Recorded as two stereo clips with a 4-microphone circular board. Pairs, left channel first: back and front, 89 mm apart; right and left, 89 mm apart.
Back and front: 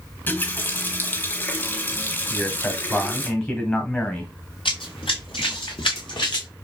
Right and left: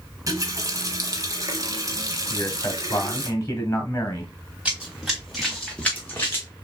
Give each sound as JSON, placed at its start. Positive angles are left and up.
{"t": 0.3, "sound": "a running tap", "azimuth_deg": 120, "distance_m": 0.9}
{"t": 2.3, "sound": "a man speaking", "azimuth_deg": -125, "distance_m": 1.6}
{"t": 4.7, "sound": "running footsteps", "azimuth_deg": 170, "distance_m": 2.0}